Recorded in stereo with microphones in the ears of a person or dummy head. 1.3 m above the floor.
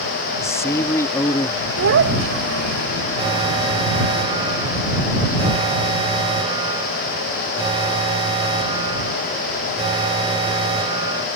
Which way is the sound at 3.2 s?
30° right (ahead or behind).